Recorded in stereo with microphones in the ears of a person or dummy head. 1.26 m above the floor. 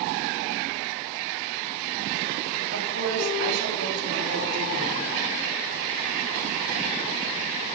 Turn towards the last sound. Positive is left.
turn(degrees=-65)  # may be behind; listen again after turning